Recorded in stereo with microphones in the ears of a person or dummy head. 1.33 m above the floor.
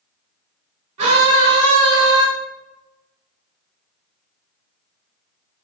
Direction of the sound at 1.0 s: 40° right (ahead or behind).